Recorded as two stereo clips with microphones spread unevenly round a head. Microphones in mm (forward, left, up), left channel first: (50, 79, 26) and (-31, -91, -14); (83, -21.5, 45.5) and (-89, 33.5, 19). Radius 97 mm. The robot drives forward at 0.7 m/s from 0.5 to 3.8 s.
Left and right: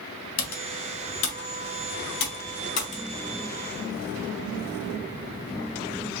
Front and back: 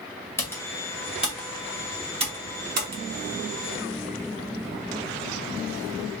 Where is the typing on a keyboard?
60° left, 1.8 m; by 3.0 s 120° left, 1.8 m.